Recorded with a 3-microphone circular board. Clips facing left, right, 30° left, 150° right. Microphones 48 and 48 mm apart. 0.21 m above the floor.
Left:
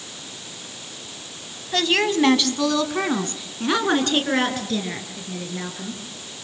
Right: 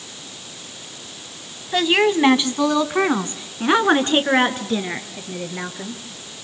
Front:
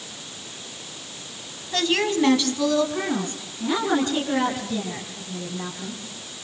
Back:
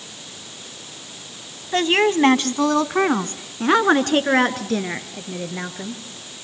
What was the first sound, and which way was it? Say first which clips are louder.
A woman speaking: right 3 dB, back 5 dB; 155° right.